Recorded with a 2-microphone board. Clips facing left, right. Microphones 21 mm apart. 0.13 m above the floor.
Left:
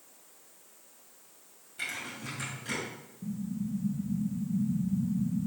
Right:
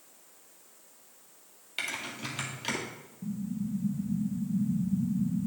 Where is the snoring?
No snoring in this recording.